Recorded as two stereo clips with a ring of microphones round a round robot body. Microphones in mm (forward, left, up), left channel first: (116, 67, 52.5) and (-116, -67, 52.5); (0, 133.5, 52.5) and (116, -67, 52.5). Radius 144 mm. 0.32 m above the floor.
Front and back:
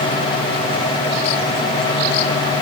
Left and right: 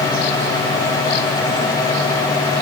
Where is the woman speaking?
I don't hear a woman speaking.